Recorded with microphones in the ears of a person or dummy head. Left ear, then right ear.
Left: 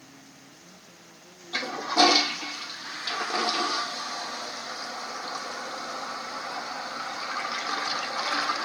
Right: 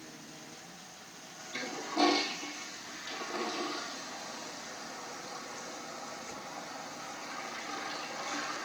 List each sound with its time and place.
1.5 s a toilet flushing: 55° left (ahead or behind), 0.5 m